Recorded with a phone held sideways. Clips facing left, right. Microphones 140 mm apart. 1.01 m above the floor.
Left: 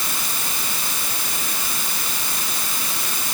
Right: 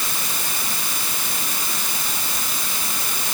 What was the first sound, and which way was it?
Only background noise.